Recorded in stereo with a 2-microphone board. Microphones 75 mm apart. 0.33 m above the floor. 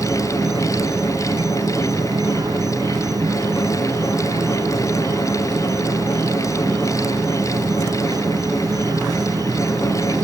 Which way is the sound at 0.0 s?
55° right (ahead or behind).